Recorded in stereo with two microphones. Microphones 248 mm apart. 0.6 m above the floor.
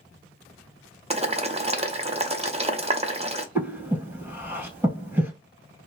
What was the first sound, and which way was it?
Boiling, 25° right (ahead or behind).